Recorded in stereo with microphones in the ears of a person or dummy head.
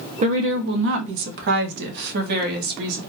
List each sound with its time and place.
0.2 s a woman speaking: 30° right (ahead or behind), 0.6 m; by 3.0 s 55° right (ahead or behind), 1.7 m